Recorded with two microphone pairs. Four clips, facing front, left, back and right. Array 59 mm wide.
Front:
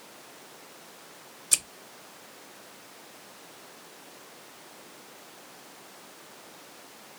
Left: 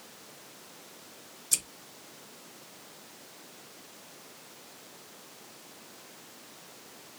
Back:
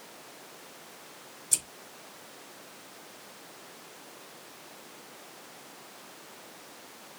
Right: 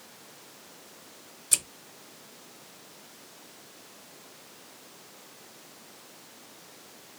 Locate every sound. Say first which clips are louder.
1.5 s scissors: right 4 dB, front 7 dB; 25° right, 0.6 m